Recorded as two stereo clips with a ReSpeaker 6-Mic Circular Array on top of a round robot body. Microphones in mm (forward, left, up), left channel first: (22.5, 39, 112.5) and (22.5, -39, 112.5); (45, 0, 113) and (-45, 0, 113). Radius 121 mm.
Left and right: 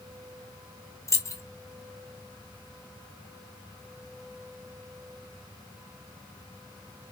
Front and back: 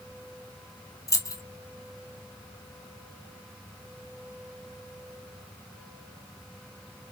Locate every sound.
1.1 s keys jangling: 45° left, 0.9 m